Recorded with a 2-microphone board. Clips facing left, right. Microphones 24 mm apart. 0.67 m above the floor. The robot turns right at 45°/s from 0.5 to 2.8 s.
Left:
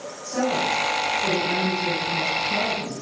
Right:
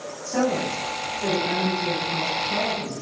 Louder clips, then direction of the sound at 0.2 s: Left 1 dB; 155° right.